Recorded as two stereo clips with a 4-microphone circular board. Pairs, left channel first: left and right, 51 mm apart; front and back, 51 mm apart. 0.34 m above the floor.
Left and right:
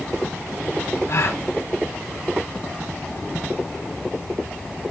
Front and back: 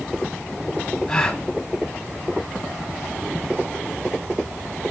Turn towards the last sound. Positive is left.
turn(degrees=75)